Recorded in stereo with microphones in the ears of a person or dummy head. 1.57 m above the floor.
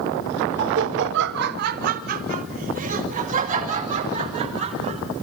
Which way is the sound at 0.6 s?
55° right (ahead or behind).